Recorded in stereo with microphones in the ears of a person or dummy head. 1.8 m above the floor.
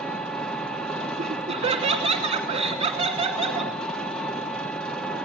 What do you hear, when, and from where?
0.0 s an engine running: 5° left (ahead or behind), 1.3 m
1.2 s laughter: 30° right (ahead or behind), 2.5 m